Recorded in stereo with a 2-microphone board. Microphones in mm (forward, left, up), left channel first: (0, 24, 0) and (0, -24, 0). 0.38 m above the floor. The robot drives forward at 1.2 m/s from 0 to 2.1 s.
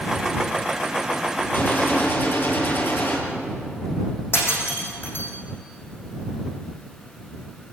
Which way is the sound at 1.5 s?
40° left (ahead or behind).